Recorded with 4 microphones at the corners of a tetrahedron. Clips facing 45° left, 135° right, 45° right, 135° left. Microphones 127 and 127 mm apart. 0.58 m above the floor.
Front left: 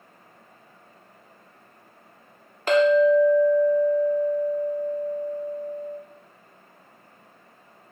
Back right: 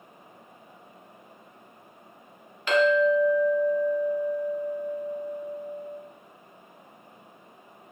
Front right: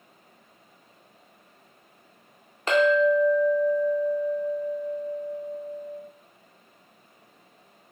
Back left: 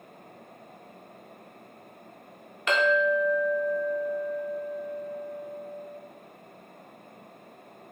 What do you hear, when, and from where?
2.7 s a clink: straight ahead, 0.5 m